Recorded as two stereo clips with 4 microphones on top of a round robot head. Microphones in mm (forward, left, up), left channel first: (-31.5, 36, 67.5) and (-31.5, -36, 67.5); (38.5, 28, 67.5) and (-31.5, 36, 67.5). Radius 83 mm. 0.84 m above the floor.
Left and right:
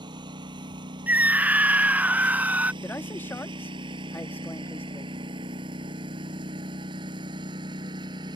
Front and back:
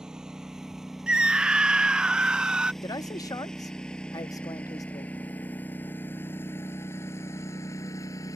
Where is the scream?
125° right.